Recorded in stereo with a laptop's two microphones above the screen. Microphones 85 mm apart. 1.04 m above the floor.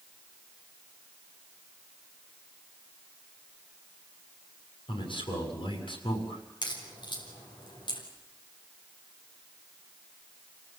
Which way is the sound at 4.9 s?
85° left.